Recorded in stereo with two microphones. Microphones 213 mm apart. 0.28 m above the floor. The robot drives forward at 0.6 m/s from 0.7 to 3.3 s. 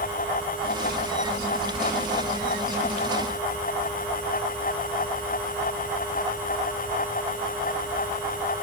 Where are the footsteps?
No footsteps in this recording.